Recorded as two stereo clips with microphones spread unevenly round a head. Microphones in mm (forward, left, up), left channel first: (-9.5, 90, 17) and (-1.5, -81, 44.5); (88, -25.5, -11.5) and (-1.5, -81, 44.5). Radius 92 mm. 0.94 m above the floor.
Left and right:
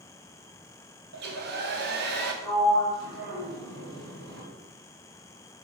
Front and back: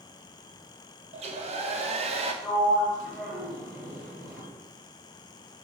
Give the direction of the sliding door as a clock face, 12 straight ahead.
2 o'clock.